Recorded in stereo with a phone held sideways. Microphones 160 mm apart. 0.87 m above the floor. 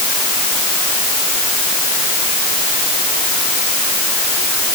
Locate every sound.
Only background noise.